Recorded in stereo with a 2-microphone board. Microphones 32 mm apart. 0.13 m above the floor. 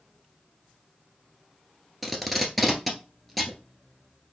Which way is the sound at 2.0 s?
5° left (ahead or behind).